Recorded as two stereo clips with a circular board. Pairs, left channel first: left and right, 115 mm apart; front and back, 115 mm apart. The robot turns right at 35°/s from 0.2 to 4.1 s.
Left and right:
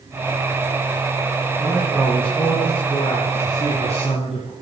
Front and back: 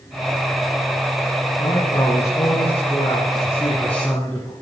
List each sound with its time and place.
1.6 s a man speaking: 10° right, 3.5 m; by 4.5 s 80° left, 3.5 m